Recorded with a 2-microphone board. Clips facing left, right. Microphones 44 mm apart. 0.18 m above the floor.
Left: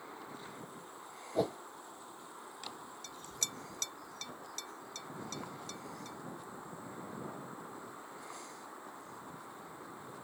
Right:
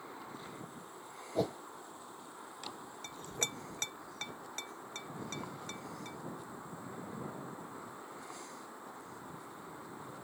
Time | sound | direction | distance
1.4 | a whoosh | 10° left (ahead or behind) | ?
3.0 | a clink | 35° right (ahead or behind) | ?